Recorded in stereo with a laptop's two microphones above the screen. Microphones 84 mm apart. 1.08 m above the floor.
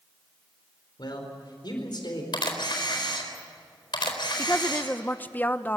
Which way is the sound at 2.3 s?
70° left (ahead or behind).